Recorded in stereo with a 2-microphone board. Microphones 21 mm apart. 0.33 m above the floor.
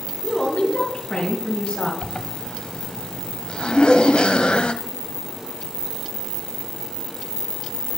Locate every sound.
0.2 s a woman speaking: 65° left (ahead or behind), 3.5 m; by 1.9 s 50° left (ahead or behind), 2.5 m
2.0 s a zipper: 55° left (ahead or behind), 0.5 m
3.7 s laughter: 60° left (ahead or behind), 2.5 m